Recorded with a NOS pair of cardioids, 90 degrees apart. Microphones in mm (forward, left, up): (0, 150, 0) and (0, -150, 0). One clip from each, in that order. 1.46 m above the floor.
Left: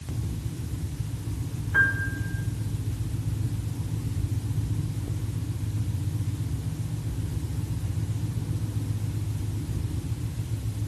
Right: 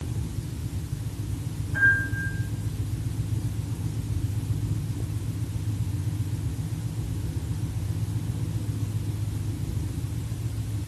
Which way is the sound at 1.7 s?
70° left.